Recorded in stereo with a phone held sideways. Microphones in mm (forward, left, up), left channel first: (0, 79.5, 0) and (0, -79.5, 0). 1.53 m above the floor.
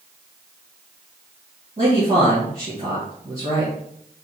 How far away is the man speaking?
About 2 m.